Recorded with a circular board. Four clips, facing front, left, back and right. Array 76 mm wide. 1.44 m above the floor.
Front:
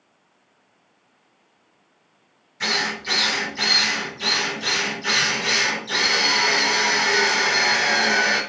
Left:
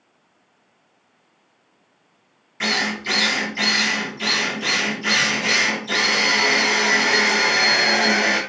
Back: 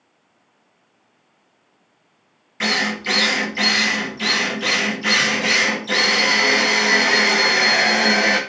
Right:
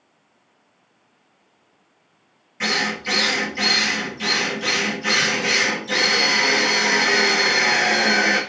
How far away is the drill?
About 1.1 m.